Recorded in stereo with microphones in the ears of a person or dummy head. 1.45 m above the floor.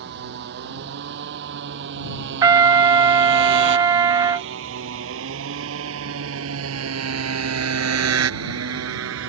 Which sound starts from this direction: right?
A motorcycle, at 0.0 s.